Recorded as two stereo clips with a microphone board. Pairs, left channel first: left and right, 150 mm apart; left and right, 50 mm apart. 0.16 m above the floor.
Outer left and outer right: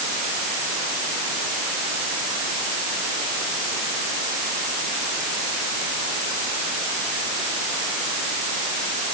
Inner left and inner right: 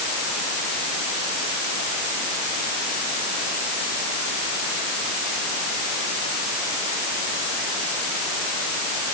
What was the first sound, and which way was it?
Only background noise.